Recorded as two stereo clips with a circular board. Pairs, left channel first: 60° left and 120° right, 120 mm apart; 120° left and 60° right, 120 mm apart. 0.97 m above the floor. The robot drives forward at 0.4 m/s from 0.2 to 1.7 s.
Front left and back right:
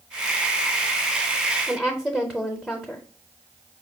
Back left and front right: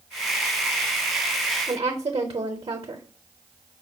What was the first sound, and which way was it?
A woman speaking, 30° right.